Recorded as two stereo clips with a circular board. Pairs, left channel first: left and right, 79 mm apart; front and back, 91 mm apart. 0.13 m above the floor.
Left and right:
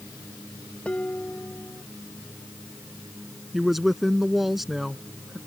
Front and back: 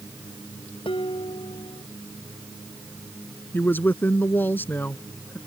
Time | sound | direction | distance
0.8 | dishes clattering | 15° left | ?
3.5 | a woman speaking | 5° right | ?